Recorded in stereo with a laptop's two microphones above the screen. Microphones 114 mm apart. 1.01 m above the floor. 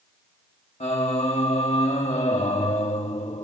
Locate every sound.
0.8 s singing: 75° left (ahead or behind), 1.2 m